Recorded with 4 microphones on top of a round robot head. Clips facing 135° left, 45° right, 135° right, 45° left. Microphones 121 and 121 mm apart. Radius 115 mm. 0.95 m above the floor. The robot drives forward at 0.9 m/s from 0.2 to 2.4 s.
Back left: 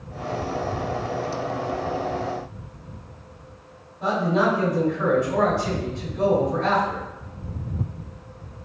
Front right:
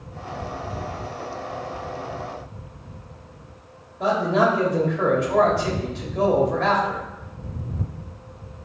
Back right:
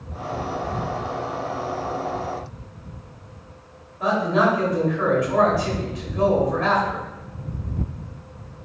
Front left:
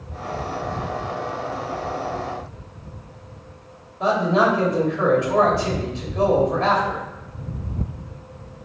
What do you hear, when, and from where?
4.0 s a man speaking: 20° right, 3 m